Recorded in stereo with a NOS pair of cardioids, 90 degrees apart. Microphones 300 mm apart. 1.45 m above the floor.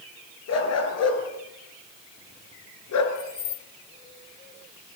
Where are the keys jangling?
50° left, 2.5 m.